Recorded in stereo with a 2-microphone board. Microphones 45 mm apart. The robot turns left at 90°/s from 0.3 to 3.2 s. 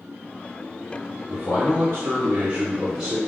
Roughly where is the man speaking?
Ahead.